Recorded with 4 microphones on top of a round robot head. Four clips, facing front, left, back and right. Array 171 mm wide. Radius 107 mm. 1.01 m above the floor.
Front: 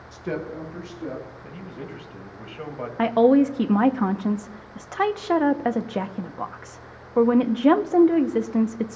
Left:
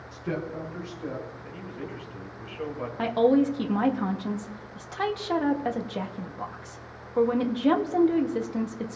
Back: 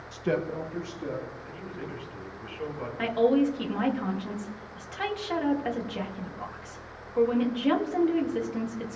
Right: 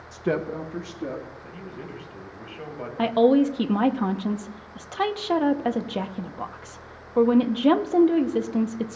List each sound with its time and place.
0.1 s a woman speaking: 110° right, 0.6 m; by 1.2 s 90° right, 1.8 m
1.4 s a man speaking: 5° right, 2.5 m
3.0 s a woman speaking: 20° right, 0.7 m